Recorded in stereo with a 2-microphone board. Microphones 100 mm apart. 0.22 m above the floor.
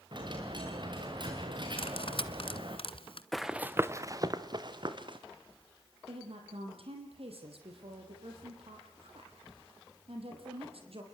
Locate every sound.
0.1 s a dropped coin: 50° right (ahead or behind), 4.5 m
1.8 s cutlery clinking: 65° left (ahead or behind), 1.4 m
3.3 s running footsteps: 5° left (ahead or behind), 1.1 m; by 5.2 s 50° right (ahead or behind), 3 m
6.1 s a woman speaking: 70° right (ahead or behind), 6.5 m